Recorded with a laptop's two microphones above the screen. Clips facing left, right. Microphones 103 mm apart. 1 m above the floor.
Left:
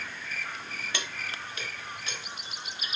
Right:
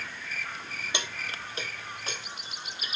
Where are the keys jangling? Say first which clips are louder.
Right 2 dB; 20° right (ahead or behind), 1.0 m; by 3.0 s 45° right (ahead or behind), 2 m.